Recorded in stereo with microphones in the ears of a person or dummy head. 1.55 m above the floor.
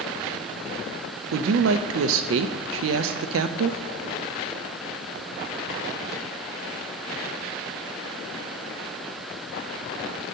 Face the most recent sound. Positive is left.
turn(degrees=-60)  # may be behind; listen again after turning